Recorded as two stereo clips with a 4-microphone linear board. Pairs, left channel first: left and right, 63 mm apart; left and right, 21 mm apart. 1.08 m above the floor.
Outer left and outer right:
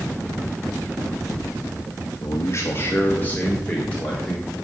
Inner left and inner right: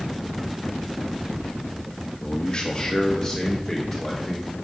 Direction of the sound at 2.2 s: 50° left (ahead or behind).